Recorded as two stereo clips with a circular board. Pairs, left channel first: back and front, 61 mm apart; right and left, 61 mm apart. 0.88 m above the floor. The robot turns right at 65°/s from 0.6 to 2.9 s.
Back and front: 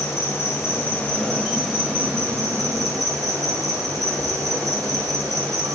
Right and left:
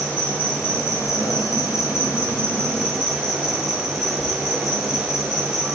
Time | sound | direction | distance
0.0 | an insect | 155° right | 2.0 m